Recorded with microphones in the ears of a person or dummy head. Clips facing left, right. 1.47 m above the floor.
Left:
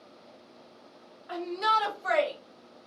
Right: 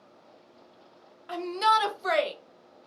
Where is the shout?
40° right (ahead or behind), 0.7 m; by 2.3 s 45° right (ahead or behind), 0.9 m.